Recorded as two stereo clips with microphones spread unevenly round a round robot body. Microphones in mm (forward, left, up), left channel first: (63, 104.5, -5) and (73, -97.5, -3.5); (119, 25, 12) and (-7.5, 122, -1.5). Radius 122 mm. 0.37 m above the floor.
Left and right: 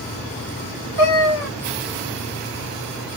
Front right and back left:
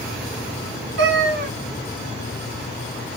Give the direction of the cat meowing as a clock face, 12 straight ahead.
8 o'clock.